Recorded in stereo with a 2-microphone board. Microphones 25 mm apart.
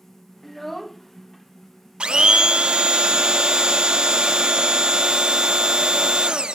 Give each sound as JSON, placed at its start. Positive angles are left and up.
{"t": 0.4, "sound": "a child speaking", "side_deg": 5}
{"t": 2.0, "sound": "a blender", "side_deg": -35}